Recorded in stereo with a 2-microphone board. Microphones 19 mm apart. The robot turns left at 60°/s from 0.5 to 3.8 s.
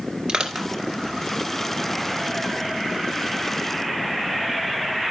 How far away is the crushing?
About 2.0 m.